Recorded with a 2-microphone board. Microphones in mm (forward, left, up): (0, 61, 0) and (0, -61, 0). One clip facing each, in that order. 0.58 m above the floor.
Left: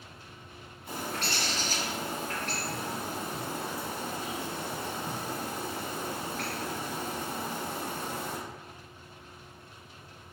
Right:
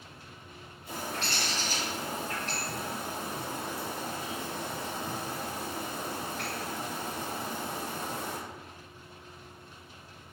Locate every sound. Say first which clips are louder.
0.9 s a bird: left 1 dB; 65° left (ahead or behind), 2.0 m